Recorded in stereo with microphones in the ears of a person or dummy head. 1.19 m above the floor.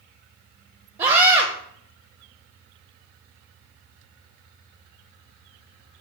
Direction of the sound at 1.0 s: 25° right (ahead or behind).